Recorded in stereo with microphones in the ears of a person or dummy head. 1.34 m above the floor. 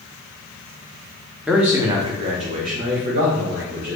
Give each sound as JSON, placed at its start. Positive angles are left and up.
{"t": 1.5, "sound": "a man speaking", "side_deg": -5, "distance_m": 0.8}